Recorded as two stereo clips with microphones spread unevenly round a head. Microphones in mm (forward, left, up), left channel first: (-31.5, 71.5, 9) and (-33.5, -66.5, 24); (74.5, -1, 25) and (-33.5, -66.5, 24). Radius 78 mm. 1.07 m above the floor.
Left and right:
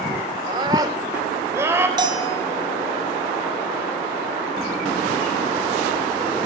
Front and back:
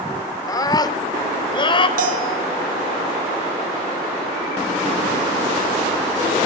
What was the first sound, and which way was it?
A scream, 30° right.